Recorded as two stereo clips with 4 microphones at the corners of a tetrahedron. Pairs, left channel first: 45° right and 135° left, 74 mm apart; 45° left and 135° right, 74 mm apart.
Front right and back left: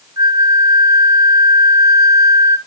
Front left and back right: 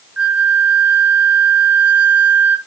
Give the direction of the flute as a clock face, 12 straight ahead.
7 o'clock.